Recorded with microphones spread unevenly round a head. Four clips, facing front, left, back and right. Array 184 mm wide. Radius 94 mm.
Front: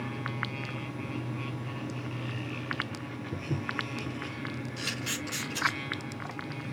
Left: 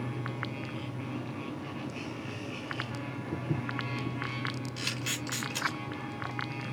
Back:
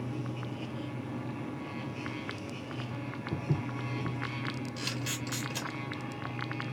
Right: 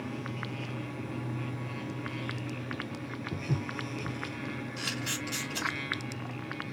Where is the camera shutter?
145° left, 3.5 m.